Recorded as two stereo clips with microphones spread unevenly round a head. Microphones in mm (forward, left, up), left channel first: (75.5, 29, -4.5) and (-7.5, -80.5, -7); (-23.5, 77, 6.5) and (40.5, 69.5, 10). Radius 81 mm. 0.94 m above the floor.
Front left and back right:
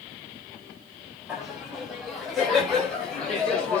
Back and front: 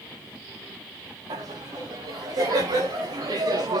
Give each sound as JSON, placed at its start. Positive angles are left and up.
{"t": 1.3, "sound": "laughter", "azimuth_deg": -40, "distance_m": 6.5}